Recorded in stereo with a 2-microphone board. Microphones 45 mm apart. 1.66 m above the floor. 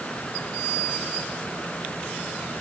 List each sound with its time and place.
Only background noise.